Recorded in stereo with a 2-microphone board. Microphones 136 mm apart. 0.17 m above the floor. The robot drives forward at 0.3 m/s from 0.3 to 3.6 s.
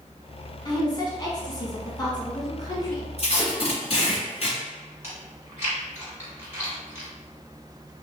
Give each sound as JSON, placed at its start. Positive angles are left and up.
{"t": 0.7, "sound": "a woman speaking", "side_deg": 30, "distance_m": 1.2}
{"t": 3.2, "sound": "tape being pulled", "side_deg": 45, "distance_m": 1.8}
{"t": 5.0, "sound": "chewing", "side_deg": -20, "distance_m": 1.8}